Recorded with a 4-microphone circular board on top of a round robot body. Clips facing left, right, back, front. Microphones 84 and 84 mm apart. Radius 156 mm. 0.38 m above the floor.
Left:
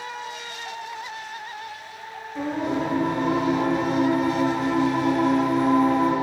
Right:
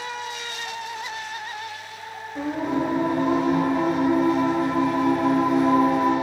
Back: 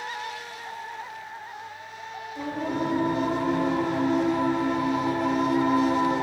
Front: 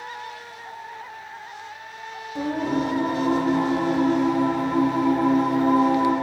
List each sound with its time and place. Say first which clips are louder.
2.4 s singing: right 1 dB, front 5 dB; 5° right, 3.5 m